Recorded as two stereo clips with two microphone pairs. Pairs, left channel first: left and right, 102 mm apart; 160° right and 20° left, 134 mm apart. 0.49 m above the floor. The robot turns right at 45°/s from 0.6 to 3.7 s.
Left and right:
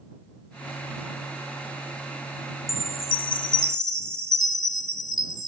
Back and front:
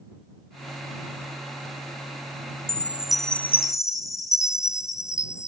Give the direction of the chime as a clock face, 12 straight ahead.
9 o'clock.